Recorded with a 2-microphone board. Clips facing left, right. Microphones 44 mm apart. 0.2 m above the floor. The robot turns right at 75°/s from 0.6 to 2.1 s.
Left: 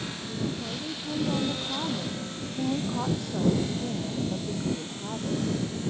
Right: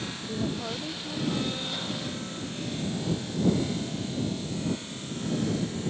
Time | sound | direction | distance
0.3 | a woman speaking | 30° right | ?